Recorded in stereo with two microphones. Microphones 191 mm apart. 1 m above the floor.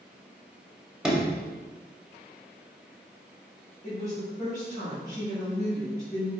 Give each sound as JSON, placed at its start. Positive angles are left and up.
{"t": 1.0, "sound": "a sliding door", "side_deg": -5, "distance_m": 0.7}
{"t": 3.8, "sound": "a woman speaking", "side_deg": 40, "distance_m": 1.7}